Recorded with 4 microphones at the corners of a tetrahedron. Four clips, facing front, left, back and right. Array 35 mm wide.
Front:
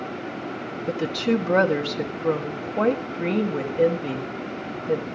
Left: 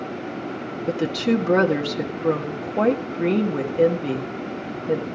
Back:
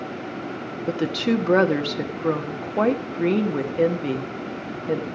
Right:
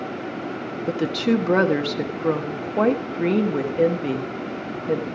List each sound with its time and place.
0.9 s a woman speaking: 160° right, 1.3 m